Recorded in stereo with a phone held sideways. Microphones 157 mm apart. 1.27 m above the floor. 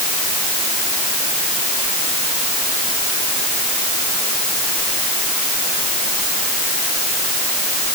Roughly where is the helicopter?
No helicopter in this recording.